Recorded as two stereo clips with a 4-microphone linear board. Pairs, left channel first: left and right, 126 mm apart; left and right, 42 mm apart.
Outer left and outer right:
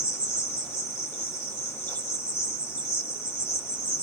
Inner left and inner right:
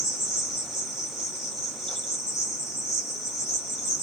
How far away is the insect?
About 1.6 m.